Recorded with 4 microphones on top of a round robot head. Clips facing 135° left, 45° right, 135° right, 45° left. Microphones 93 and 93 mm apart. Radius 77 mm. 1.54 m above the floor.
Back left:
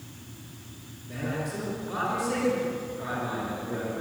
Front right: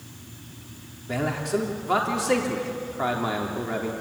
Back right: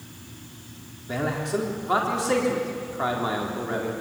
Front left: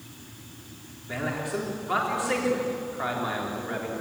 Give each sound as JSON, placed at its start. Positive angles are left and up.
{"t": 1.1, "sound": "a man speaking", "azimuth_deg": -70, "distance_m": 3.5}